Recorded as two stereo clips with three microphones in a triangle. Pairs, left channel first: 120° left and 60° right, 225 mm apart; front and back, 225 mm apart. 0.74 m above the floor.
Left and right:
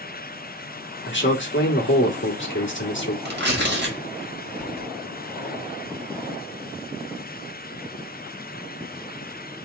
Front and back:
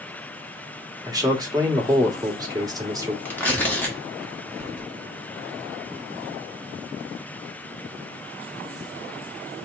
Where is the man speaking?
110° left, 1.3 m.